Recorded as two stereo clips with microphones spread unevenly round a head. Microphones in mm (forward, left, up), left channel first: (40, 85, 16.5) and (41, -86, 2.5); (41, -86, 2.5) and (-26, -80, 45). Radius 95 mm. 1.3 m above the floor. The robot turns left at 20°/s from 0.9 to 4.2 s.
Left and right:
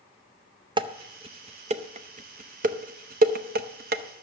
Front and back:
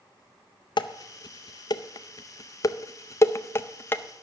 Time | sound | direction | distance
0.8 | dishes clattering | 30° right | 0.6 m